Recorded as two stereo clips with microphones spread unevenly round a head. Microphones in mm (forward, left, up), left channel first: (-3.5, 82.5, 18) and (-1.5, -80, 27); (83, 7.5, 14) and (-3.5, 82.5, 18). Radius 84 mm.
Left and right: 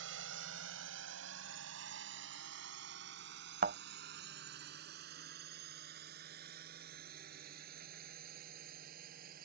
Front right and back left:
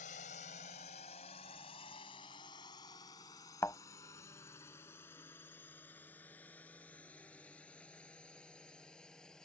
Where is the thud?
120° right.